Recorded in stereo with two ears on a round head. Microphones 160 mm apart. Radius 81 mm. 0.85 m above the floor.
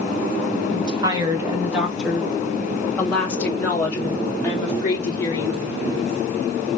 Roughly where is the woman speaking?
Right.